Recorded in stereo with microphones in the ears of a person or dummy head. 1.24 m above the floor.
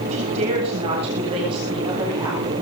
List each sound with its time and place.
0.1 s a woman speaking: 35° right (ahead or behind), 9 m; by 2.6 s 20° right (ahead or behind), 10 m